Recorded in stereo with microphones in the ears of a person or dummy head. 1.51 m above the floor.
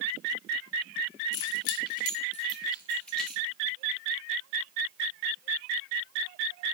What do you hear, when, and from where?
1.3 s keys jangling: 70° left (ahead or behind), 1.7 m; by 3.4 s 5° right (ahead or behind), 2 m